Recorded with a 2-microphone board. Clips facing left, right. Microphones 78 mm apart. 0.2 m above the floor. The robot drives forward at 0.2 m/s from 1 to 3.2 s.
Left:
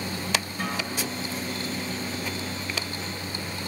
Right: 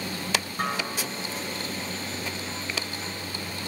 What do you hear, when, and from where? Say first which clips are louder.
0.6 s a guitar: right 1 dB; 55° right (ahead or behind), 2.5 m